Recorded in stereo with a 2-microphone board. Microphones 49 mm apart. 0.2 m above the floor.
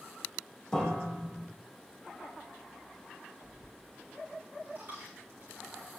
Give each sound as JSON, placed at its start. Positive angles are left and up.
{"t": 0.7, "sound": "a piano", "side_deg": 10, "distance_m": 4.5}
{"t": 3.4, "sound": "a dropped coin", "side_deg": -35, "distance_m": 6.0}